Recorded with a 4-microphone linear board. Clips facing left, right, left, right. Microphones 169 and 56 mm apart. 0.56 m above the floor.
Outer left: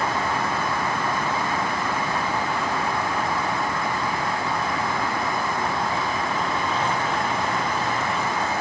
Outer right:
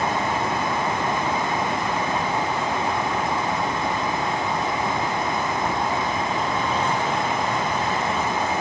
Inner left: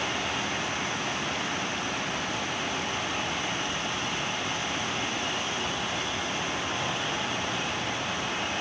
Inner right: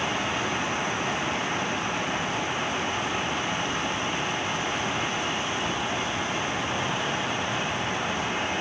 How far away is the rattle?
I don't hear a rattle.